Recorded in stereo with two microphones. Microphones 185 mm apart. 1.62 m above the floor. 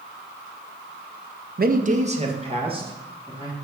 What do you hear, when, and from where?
1.6 s a man speaking: 50° right (ahead or behind), 0.5 m; by 3.5 s 25° right (ahead or behind), 2.5 m